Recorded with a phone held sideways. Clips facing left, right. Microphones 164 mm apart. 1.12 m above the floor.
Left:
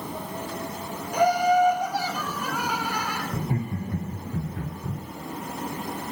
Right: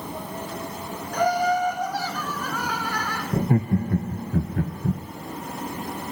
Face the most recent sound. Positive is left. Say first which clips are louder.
# right 11 dB
turn(degrees=-60)  # may be behind; listen again after turning